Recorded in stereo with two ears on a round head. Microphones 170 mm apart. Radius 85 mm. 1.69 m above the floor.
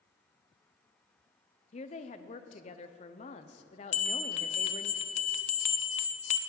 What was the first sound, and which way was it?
A woman speaking, 35° left (ahead or behind).